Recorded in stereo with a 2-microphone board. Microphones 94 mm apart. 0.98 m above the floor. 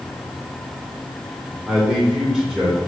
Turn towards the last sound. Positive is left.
turn(degrees=-5)  # may be behind; listen again after turning